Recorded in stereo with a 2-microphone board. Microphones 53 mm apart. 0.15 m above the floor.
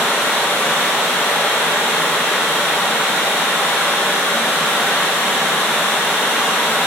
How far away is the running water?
About 3 m.